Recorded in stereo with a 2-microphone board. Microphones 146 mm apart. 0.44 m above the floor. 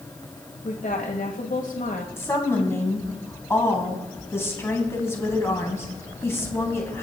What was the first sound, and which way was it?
A woman speaking, 65° left (ahead or behind).